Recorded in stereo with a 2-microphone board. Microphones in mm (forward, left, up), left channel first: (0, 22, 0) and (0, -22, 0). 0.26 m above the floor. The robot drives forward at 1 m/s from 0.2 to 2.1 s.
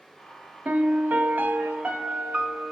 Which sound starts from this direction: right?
A piano, at 0.7 s.